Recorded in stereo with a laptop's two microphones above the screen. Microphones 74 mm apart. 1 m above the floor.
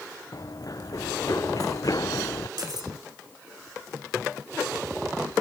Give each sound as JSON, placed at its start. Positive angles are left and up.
{"t": 0.3, "sound": "running footsteps", "side_deg": 55}
{"t": 2.6, "sound": "cutlery clinking", "side_deg": -65}